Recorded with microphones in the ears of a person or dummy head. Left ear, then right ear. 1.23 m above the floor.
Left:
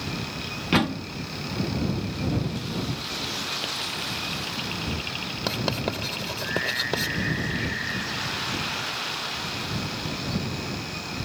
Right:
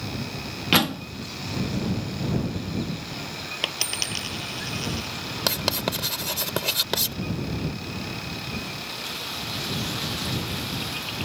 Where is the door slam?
35° right (ahead or behind).